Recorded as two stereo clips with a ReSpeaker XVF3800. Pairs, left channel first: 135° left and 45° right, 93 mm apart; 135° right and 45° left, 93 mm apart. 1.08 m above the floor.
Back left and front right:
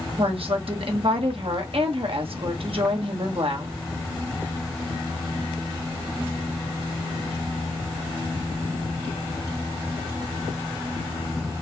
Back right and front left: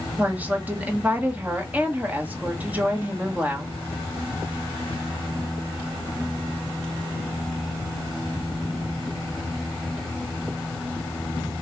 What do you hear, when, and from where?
0.2 s a woman speaking: 30° right, 1.5 m